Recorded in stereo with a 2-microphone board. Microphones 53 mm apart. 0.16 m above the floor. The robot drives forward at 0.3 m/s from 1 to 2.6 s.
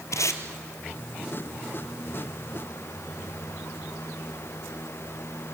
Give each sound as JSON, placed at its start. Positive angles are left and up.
{"t": 0.1, "sound": "tape being pulled", "side_deg": 70, "distance_m": 1.8}